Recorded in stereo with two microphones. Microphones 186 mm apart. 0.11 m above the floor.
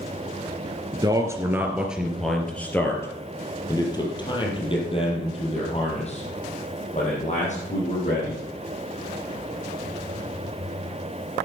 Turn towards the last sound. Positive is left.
turn(degrees=40)  # may be behind; listen again after turning